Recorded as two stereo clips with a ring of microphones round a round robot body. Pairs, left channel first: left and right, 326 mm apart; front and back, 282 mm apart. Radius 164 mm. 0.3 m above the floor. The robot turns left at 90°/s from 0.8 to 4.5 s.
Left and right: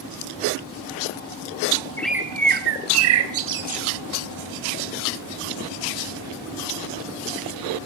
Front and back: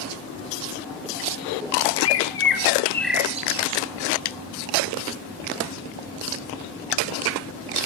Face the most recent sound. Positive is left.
turn(degrees=140)